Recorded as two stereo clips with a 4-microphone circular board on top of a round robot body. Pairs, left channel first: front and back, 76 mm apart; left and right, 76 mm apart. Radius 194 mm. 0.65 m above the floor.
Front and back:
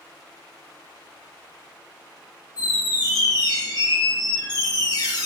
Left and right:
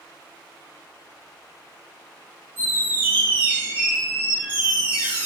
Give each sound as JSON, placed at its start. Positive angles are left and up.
{"t": 2.6, "sound": "a squeak", "azimuth_deg": -25, "distance_m": 1.0}